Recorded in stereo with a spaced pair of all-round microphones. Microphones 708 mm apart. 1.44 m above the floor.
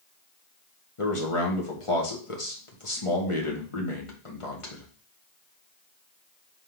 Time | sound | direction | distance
1.0 | a man speaking | 45° left (ahead or behind) | 1.9 m